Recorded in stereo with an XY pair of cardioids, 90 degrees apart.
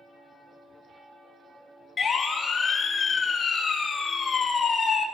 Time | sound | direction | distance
2.0 | a siren | 50° left | 4 m